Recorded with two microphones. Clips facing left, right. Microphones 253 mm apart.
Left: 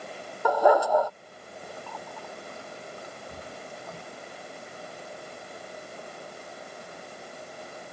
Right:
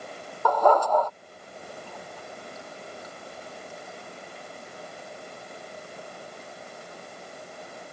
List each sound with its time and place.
0.5 s a dog barking: 10° left (ahead or behind)
1.9 s a running tap: 65° left (ahead or behind)